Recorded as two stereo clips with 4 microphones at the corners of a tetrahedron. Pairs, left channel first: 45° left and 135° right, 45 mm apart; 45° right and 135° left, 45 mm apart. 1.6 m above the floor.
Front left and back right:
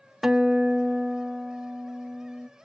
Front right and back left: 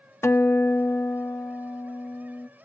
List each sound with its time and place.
0.2 s a guitar: 45° right, 0.9 m